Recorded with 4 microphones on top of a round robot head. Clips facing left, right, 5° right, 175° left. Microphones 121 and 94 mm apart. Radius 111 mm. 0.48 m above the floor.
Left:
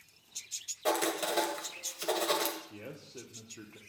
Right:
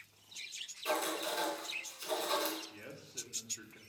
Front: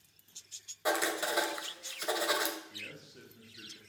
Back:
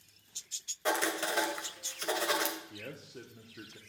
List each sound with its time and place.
0.8 s writing: 80° left, 2 m
2.7 s a man speaking: 140° left, 1.2 m